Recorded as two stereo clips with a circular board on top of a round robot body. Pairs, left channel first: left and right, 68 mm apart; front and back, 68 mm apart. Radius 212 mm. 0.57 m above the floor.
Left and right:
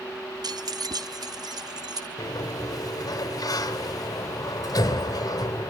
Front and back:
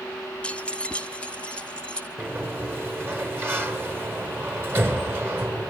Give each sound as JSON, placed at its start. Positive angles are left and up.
{"t": 0.4, "sound": "keys jangling", "azimuth_deg": -75, "distance_m": 0.5}
{"t": 2.2, "sound": "a sliding door", "azimuth_deg": 120, "distance_m": 3.5}